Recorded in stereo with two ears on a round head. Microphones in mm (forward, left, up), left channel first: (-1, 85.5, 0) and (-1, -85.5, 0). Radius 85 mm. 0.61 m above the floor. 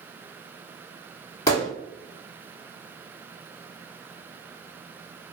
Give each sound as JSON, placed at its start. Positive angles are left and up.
{"t": 1.5, "sound": "a gunshot", "side_deg": 20, "distance_m": 1.7}